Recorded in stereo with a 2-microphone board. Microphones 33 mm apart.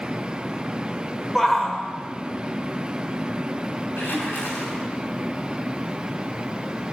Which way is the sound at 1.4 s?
5° left (ahead or behind).